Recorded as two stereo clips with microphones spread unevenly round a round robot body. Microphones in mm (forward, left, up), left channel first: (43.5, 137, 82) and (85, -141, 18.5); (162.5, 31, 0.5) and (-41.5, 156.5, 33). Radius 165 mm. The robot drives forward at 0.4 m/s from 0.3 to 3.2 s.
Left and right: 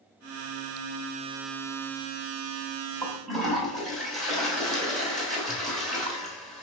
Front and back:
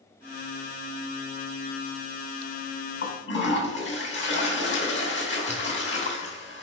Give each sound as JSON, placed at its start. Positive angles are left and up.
{"t": 3.0, "sound": "a toilet flushing", "azimuth_deg": 5, "distance_m": 3.0}